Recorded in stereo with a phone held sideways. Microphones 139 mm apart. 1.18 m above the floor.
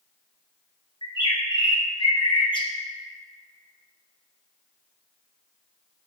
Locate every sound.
1.0 s a bird: 35° left (ahead or behind), 1.2 m